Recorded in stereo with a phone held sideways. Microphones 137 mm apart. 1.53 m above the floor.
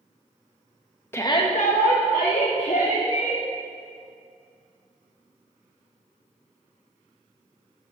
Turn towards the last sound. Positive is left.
turn(degrees=65)  # may be behind; listen again after turning